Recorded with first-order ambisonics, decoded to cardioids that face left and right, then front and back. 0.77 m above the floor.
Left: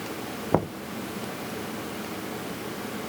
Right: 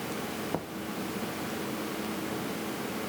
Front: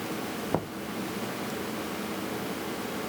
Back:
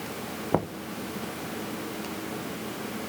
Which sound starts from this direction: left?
Knocking, at 0.5 s.